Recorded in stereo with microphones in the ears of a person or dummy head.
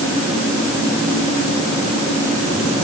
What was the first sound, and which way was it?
Only background noise.